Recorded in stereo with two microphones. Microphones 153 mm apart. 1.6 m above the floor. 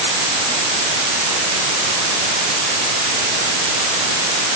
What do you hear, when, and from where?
Only background noise.